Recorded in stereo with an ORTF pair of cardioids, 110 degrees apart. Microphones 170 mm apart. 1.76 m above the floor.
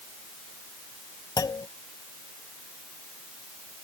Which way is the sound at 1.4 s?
25° left.